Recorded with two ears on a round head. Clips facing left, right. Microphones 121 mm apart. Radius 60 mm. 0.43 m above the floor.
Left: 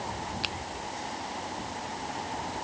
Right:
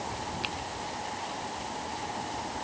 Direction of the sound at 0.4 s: 50° left (ahead or behind).